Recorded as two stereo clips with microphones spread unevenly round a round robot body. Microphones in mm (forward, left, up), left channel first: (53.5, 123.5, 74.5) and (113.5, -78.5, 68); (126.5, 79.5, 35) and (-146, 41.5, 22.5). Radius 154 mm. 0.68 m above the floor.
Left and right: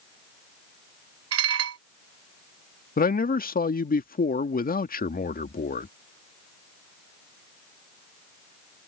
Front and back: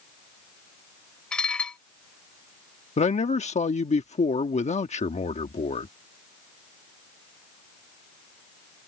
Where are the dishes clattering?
80° right.